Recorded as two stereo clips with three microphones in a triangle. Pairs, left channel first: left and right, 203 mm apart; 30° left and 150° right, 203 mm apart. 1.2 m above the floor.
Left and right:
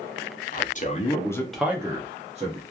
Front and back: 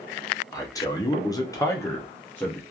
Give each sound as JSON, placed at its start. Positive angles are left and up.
{"t": 0.5, "sound": "a man speaking", "azimuth_deg": 95, "distance_m": 0.7}